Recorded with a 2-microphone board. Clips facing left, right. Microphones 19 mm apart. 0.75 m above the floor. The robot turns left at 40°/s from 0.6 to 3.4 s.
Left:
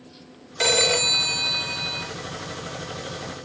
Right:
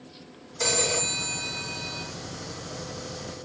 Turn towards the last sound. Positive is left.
turn(degrees=10)